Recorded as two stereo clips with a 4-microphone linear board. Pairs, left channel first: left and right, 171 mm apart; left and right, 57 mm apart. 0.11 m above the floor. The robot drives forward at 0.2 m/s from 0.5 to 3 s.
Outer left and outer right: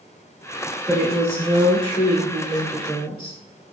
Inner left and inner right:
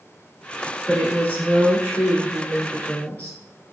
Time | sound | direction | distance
0.9 | a woman speaking | 30° left (ahead or behind) | 1.4 m